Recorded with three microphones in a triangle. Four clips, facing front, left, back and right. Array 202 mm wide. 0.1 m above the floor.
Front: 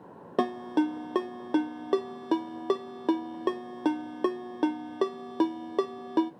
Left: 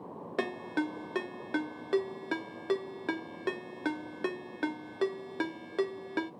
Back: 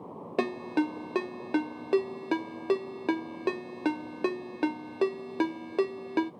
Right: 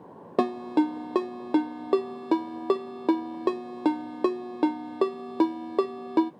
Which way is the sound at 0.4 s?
80° right.